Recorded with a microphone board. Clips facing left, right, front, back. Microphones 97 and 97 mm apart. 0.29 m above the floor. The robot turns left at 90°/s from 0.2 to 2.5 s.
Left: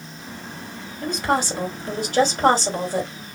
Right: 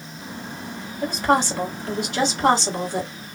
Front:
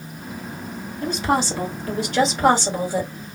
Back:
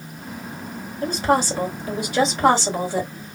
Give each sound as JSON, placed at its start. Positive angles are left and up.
{"t": 1.0, "sound": "a woman speaking", "azimuth_deg": -155, "distance_m": 1.9}